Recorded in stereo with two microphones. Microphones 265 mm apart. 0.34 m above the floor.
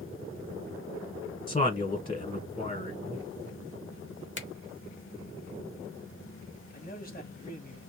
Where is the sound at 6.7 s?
35° left (ahead or behind), 1.4 m.